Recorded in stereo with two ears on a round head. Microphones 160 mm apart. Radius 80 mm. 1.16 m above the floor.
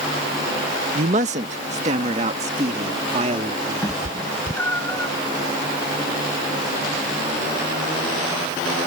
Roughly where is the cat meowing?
Centre.